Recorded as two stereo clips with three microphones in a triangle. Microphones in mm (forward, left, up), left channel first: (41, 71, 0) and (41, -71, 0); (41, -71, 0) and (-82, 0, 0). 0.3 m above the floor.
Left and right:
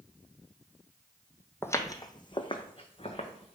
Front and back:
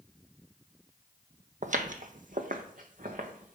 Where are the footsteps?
160° left, 0.6 m; by 3.5 s 135° left, 1.4 m.